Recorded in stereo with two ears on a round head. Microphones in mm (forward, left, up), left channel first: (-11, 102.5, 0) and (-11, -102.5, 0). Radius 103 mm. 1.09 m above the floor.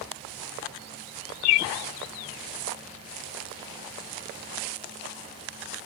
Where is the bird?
75° left (ahead or behind), 0.6 m.